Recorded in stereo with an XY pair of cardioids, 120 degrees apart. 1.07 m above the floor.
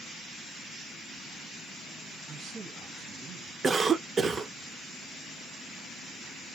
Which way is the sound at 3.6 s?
30° right.